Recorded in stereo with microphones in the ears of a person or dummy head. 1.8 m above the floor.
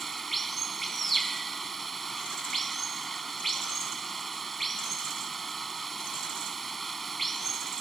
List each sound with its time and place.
0.0 s running water: centre (ahead or behind)